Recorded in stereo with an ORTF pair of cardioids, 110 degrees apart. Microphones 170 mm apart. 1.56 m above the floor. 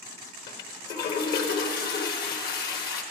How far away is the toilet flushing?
About 1.2 m.